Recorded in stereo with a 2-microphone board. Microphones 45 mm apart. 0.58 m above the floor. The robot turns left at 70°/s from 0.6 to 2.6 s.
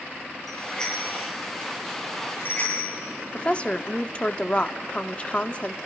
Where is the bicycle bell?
5° left (ahead or behind), 9 m; by 3.0 s 35° left (ahead or behind), 9 m.